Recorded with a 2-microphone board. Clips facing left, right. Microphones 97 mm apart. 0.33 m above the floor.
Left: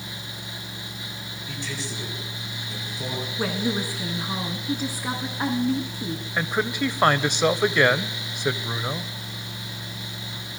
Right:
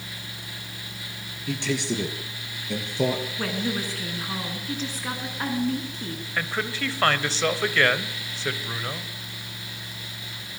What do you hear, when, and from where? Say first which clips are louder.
1.5 s a man speaking: right 8 dB; 80° right, 5.5 m
3.4 s a woman speaking: left 2 dB; 10° left (ahead or behind), 3.5 m
6.4 s a man speaking: left 4 dB; 15° left (ahead or behind), 1.2 m